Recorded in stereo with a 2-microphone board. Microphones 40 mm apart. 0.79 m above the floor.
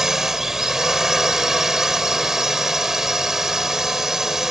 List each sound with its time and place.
0.0 s a drone: 10° right (ahead or behind)